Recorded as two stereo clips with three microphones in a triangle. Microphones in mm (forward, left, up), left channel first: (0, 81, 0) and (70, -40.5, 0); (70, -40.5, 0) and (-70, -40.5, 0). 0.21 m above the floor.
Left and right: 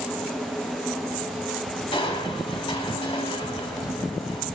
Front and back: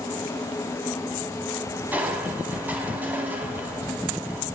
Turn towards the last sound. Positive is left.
turn(degrees=110)